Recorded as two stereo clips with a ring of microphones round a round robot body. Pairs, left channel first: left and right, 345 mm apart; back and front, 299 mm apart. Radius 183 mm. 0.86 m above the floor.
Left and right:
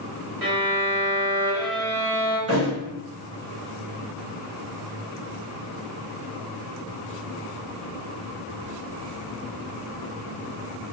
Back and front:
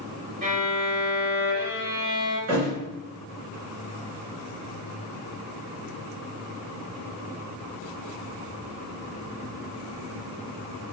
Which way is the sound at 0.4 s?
70° right.